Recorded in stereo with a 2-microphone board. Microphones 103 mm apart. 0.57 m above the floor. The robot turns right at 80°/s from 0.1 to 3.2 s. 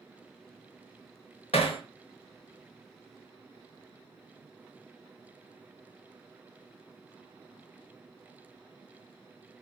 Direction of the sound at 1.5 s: 75° left (ahead or behind).